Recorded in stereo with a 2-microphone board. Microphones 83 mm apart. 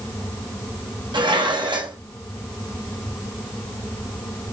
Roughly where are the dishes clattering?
Right.